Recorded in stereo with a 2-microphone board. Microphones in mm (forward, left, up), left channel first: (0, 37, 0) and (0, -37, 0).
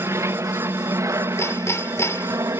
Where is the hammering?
40° left (ahead or behind).